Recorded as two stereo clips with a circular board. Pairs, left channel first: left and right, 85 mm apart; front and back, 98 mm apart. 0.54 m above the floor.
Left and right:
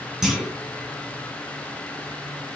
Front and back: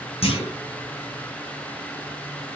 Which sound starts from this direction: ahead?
A clunk, at 0.2 s.